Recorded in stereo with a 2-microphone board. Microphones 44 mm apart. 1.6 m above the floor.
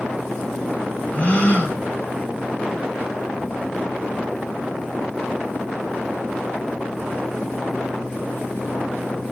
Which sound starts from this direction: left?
A gasp, at 1.1 s.